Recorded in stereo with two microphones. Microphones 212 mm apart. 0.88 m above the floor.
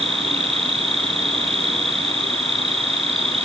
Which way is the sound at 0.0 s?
30° right (ahead or behind).